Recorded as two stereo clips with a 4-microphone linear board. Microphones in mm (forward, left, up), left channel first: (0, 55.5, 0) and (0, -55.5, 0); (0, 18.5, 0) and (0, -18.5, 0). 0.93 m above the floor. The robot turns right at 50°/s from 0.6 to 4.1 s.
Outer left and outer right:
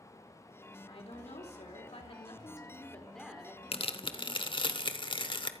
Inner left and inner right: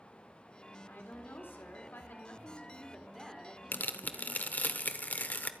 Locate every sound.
0.9 s a woman speaking: 60° left, 3 m; by 4.7 s 140° right, 3 m
3.7 s tearing paper: 65° left (ahead or behind), 1.0 m; by 5.5 s 50° left (ahead or behind), 1.0 m